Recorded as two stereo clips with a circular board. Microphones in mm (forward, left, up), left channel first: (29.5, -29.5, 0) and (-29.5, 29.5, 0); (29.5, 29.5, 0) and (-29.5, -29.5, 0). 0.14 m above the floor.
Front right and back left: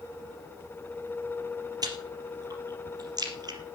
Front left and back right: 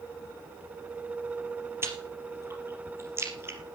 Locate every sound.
1.8 s chewing: 170° left, 3.5 m